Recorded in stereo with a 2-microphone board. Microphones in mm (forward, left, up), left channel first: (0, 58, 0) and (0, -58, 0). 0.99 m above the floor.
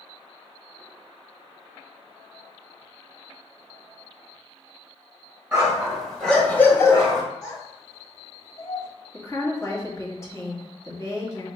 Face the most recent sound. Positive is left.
turn(degrees=25)  # may be behind; listen again after turning